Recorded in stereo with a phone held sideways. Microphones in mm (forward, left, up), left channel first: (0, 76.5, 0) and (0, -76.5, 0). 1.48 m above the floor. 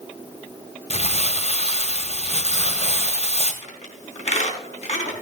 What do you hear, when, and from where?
0.9 s crumpling: 45° left (ahead or behind), 2.0 m
3.6 s a squeak: 50° left (ahead or behind), 4 m